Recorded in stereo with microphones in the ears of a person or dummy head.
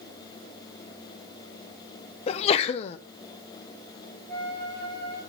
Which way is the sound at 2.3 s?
40° left (ahead or behind).